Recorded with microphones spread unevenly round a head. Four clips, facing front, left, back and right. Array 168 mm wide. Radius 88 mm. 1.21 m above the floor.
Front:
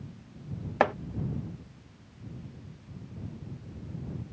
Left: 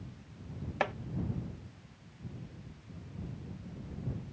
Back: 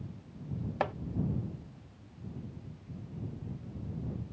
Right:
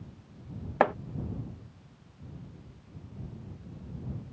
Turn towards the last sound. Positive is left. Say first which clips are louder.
# right 9 dB, front 8 dB
turn(degrees=-45)